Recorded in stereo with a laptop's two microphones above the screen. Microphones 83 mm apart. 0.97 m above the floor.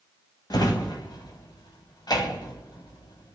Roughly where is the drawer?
Left.